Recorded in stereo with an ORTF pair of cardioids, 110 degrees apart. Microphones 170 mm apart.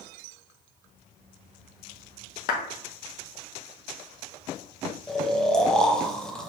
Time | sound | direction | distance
2.5 | a clap | 60° left | 0.7 m
5.1 | snoring | 5° left | 0.6 m